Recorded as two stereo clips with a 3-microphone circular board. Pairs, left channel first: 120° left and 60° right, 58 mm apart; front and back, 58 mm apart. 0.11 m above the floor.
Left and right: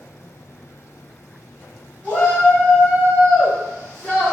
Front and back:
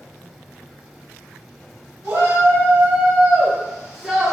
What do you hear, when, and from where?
2.0 s a shout: 175° left, 2.0 m; by 4.3 s 120° left, 1.3 m